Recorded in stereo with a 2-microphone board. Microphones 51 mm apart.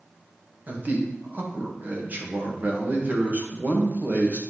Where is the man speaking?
35° right (ahead or behind), 1.5 m.